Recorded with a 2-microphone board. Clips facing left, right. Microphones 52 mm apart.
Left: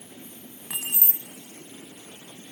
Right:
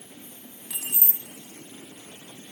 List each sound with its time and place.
0.7 s keys jangling: 45° left (ahead or behind), 1.0 m